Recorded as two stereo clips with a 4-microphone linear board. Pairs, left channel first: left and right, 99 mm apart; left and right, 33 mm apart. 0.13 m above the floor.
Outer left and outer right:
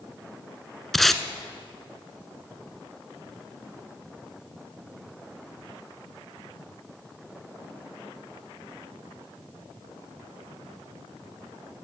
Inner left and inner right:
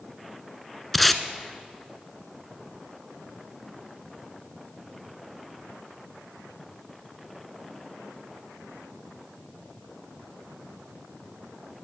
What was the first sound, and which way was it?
Tape being pulled, 5° left (ahead or behind).